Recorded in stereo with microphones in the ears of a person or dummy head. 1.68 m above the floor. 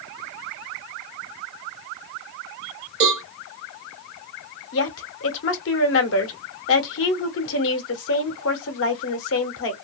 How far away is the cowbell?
About 1.3 m.